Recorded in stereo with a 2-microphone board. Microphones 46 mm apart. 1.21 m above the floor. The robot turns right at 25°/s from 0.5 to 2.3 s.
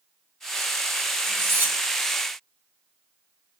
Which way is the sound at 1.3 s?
65° right (ahead or behind).